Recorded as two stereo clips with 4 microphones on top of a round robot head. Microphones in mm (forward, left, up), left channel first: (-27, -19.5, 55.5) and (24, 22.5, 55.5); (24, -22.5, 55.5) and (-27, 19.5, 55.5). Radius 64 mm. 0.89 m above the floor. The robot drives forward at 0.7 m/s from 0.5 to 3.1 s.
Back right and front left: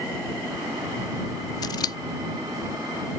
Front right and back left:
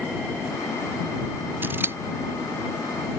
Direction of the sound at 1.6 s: 160° right.